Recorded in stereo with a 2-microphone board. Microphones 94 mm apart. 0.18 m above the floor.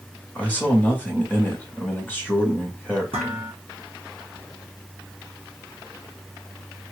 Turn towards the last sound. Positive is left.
turn(degrees=75)  # may be behind; listen again after turning